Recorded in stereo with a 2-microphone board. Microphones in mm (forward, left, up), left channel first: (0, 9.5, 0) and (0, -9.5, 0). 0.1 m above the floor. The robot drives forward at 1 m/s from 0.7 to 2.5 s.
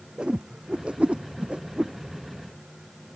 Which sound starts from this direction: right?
A whoosh, at 0.2 s.